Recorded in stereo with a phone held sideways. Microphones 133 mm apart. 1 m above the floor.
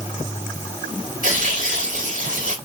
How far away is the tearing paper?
About 1.8 m.